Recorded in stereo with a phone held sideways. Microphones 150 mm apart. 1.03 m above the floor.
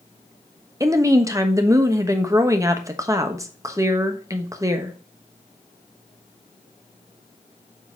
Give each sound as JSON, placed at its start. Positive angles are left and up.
{"t": 0.8, "sound": "a woman speaking", "side_deg": -20, "distance_m": 1.0}